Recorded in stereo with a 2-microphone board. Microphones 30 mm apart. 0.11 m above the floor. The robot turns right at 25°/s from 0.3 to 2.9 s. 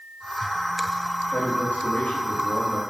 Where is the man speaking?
110° left, 5.5 m; by 2.8 s 145° left, 5.5 m.